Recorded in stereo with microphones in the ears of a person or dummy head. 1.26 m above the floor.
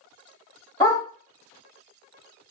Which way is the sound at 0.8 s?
20° left (ahead or behind).